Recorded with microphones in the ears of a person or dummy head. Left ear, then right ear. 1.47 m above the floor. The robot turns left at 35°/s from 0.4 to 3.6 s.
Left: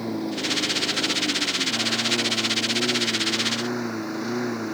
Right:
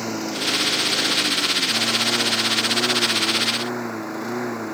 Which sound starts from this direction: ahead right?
A lawn mower, at 0.0 s.